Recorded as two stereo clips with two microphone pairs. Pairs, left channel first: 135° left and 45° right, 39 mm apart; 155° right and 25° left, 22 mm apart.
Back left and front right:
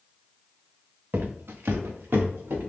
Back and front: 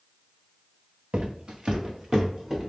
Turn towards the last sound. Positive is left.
turn(degrees=-45)